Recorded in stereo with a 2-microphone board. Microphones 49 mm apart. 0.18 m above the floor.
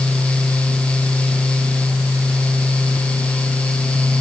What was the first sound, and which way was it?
Only background noise.